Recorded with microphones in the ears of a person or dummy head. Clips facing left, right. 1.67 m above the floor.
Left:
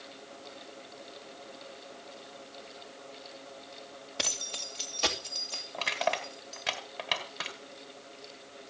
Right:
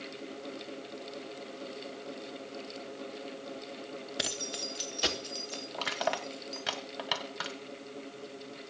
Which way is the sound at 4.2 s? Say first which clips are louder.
Even; 10° right (ahead or behind).